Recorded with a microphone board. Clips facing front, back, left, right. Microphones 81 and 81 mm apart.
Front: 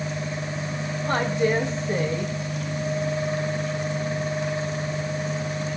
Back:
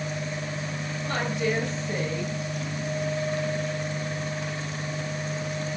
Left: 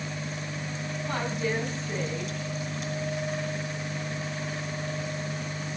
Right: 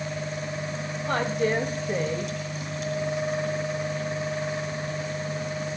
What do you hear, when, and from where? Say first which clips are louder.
1.1 s a woman speaking: front 5 dB, right 5 dB; 55° right, 3.5 m